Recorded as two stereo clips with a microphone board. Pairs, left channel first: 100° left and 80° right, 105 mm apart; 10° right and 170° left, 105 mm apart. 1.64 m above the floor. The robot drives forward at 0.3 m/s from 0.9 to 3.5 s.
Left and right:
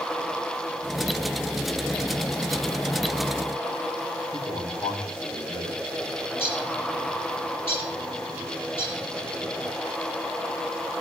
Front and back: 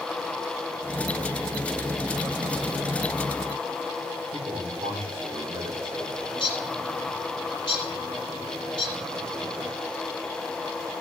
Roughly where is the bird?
Ahead left.